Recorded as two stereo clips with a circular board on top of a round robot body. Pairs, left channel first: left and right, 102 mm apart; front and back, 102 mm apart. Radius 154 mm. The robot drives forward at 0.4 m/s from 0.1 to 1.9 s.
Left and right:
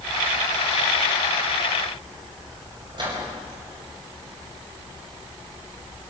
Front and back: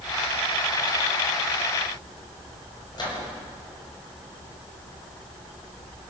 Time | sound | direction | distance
2.9 | a microwave | 45° right | 5.5 m